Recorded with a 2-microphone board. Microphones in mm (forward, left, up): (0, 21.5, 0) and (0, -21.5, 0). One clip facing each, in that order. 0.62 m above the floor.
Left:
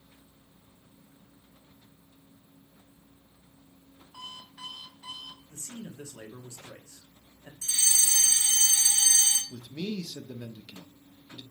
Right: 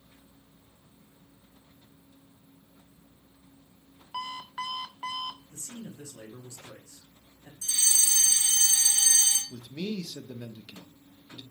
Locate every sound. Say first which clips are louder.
4.1 s an alarm clock: right 10 dB; 75° right (ahead or behind), 0.6 m
5.5 s a man speaking: even; 35° left (ahead or behind), 1.4 m
7.6 s a fire alarm: even; 35° left (ahead or behind), 4 m
9.5 s a man speaking: even; 10° right (ahead or behind), 0.8 m